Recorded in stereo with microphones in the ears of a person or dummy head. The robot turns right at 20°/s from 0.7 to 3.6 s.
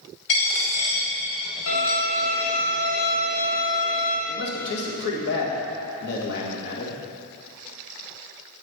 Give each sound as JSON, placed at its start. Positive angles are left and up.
{"t": 0.3, "sound": "a dropped coin", "side_deg": 35, "distance_m": 1.3}
{"t": 1.7, "sound": "a violin", "azimuth_deg": 65, "distance_m": 2.5}
{"t": 4.3, "sound": "a man speaking", "side_deg": 65, "distance_m": 1.4}